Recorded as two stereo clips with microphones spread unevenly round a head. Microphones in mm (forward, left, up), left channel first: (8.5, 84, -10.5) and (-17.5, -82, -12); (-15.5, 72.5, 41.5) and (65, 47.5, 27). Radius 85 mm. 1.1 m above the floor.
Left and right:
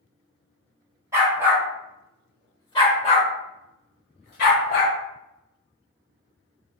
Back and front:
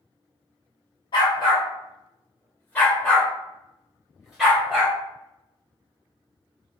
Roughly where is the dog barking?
Behind.